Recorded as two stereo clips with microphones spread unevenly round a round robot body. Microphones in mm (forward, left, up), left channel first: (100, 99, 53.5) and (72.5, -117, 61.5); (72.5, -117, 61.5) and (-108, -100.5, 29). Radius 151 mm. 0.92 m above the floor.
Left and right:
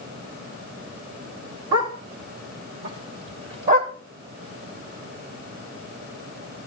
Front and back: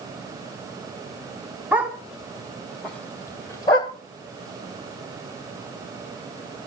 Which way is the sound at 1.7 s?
100° right.